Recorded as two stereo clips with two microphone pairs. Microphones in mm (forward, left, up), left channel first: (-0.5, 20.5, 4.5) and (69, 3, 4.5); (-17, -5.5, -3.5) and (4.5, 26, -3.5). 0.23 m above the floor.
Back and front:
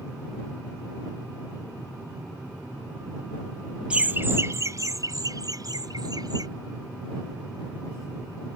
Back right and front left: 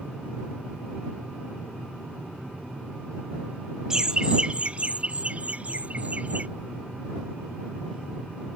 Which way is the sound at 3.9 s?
20° left.